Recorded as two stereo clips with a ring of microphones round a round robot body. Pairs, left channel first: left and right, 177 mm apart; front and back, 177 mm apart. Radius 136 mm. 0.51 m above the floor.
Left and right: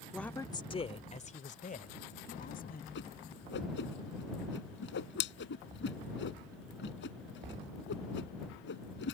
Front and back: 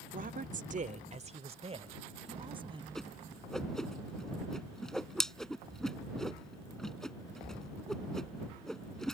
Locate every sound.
0.1 s a woman speaking: 175° left; by 2.9 s 120° left
3.0 s a whoosh: 85° left